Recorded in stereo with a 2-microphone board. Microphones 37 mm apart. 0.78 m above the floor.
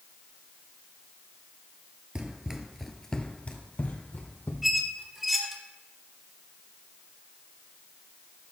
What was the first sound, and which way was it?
Running footsteps, 25° right (ahead or behind).